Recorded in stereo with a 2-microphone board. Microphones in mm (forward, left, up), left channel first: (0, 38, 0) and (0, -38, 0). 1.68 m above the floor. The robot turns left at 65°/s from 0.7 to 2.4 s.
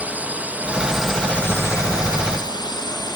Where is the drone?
160° right; by 3.2 s 90° left.